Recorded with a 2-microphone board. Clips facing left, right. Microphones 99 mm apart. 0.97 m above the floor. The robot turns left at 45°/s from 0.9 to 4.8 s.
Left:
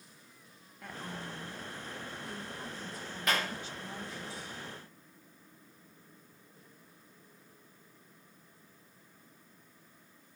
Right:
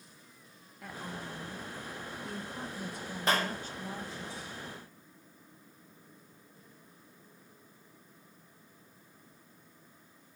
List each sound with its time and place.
0.8 s a woman speaking: 5° right, 2 m; by 4.3 s 155° right, 2 m
3.3 s a clap: 30° right (ahead or behind), 3.5 m; by 3.5 s 45° right (ahead or behind), 3.5 m